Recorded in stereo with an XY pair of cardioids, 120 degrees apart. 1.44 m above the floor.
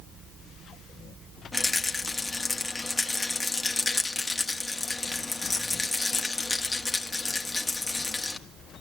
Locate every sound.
1.5 s a rattle: 20° left, 1.7 m